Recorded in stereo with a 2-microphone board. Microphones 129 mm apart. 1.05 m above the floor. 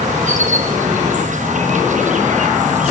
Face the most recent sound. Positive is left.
turn(degrees=-70)  # may be behind; listen again after turning